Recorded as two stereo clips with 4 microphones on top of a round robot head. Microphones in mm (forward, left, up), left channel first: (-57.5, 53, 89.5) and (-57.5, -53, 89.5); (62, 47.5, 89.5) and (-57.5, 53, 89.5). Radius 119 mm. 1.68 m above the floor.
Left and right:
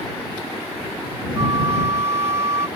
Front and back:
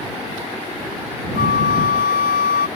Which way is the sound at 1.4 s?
15° right.